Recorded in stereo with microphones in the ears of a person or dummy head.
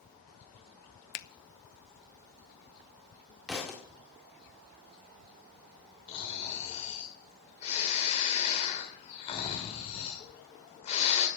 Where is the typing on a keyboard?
No typing on a keyboard in this recording.